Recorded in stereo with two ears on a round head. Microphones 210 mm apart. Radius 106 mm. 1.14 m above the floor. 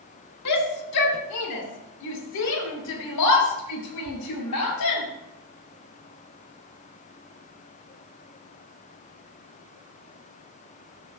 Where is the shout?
85° left, 2.5 m.